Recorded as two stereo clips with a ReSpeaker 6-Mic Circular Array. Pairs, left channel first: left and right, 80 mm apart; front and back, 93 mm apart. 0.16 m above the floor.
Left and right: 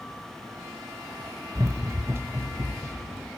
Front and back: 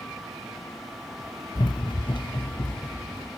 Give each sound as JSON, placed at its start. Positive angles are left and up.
{"t": 1.6, "sound": "running footsteps", "azimuth_deg": -35, "distance_m": 0.7}